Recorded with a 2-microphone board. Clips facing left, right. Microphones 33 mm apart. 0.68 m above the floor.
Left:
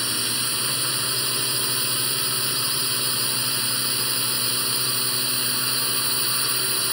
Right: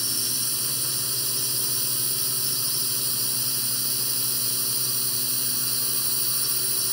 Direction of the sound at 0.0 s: 35° left (ahead or behind).